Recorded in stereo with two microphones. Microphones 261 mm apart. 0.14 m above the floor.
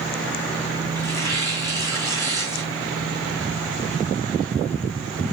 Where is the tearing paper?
10° left (ahead or behind), 4 m.